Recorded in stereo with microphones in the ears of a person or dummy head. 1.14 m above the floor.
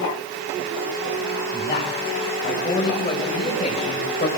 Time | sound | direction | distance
1.5 | a man speaking | 20° left (ahead or behind) | 7.5 m